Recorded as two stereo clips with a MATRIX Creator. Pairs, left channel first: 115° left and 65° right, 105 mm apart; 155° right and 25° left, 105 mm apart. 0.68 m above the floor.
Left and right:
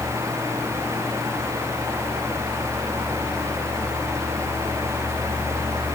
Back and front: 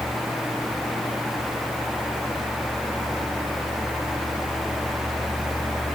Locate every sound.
Only background noise.